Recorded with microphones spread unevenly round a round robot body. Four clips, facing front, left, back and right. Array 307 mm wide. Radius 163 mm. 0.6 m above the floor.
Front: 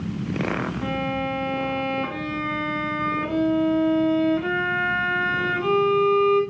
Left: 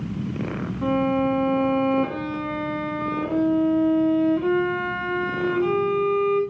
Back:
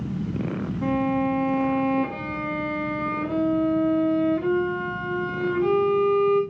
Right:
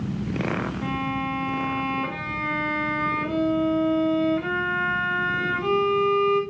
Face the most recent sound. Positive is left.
turn(degrees=145)